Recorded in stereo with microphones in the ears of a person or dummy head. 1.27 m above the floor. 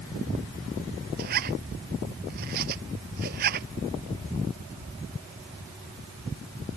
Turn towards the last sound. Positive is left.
turn(degrees=-55)  # may be behind; listen again after turning